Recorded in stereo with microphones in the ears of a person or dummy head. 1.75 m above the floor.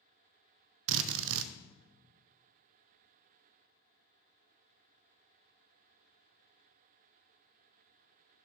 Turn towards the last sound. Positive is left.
turn(degrees=-70)  # may be behind; listen again after turning